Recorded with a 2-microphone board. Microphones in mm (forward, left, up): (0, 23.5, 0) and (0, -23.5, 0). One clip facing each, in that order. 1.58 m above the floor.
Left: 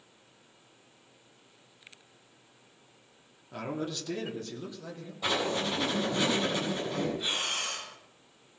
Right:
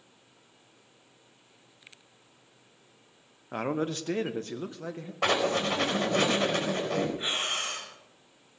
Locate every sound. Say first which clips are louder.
3.5 s a man speaking: right 5 dB; 45° right (ahead or behind), 1.0 m; by 5.1 s 40° right (ahead or behind), 1.9 m
5.2 s writing: right 4 dB; 75° right (ahead or behind), 4 m
7.2 s breathing: right 2 dB; 35° right (ahead or behind), 5 m